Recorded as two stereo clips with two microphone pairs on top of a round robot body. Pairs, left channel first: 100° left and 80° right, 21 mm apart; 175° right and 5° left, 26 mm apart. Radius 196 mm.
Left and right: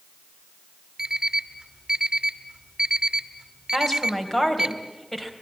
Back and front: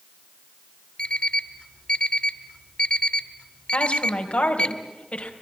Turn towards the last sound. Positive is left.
turn(degrees=175)